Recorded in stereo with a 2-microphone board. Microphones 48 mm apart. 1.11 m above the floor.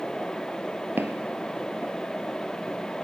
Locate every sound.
1.0 s footsteps: 50° right (ahead or behind), 1.6 m; by 3.0 s 35° right (ahead or behind), 2 m